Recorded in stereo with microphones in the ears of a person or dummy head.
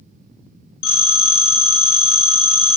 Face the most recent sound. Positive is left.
turn(degrees=60)  # may be behind; listen again after turning